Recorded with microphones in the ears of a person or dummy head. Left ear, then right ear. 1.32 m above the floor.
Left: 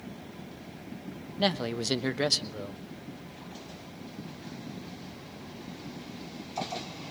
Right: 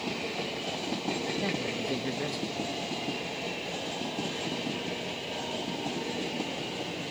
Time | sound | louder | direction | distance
1.4 | a man speaking | left 2 dB | 80° left | 1.1 m